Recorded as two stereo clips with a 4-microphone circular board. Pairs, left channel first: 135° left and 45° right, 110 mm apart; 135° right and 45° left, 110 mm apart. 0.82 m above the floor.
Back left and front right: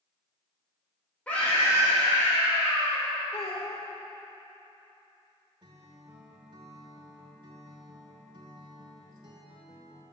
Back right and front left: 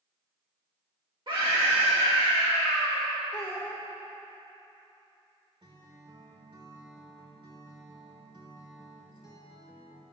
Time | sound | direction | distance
1.3 | a scream | 60° left | 1.4 m
3.3 | a child speaking | 155° left | 1.1 m
5.6 | a guitar | straight ahead | 1.2 m